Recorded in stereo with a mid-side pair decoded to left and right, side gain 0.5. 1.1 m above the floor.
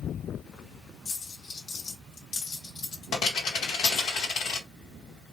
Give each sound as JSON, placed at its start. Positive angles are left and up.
{"t": 1.1, "sound": "a dropped coin", "azimuth_deg": 70, "distance_m": 2.0}